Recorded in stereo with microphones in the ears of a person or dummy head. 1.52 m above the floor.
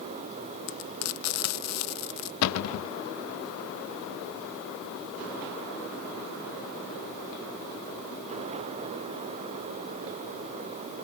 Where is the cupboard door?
85° left.